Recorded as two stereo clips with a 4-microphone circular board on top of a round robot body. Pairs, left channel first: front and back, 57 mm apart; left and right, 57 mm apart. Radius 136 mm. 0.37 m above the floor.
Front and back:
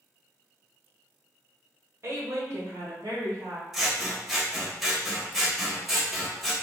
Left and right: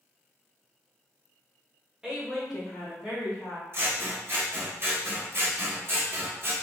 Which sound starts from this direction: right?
Scissors, at 3.7 s.